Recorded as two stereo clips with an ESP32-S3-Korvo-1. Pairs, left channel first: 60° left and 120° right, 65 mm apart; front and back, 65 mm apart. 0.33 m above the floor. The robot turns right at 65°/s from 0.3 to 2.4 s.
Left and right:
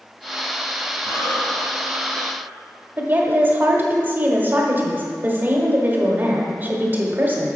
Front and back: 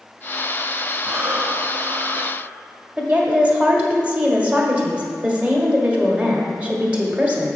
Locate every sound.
1.1 s breathing: 100° left, 1.2 m; by 2.4 s 170° right, 1.2 m
3.0 s a woman speaking: 130° right, 1.3 m